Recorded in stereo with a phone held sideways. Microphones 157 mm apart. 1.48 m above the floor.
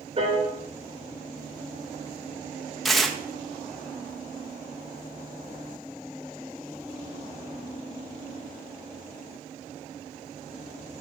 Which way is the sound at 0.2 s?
45° right (ahead or behind).